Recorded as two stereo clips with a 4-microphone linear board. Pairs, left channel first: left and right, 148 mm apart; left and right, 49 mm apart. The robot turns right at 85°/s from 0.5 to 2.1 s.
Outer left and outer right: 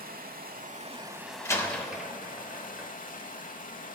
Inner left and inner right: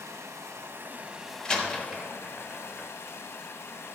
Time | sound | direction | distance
0.0 | running water | 75° right | 0.7 m
1.4 | a door slam | 20° left (ahead or behind) | 0.8 m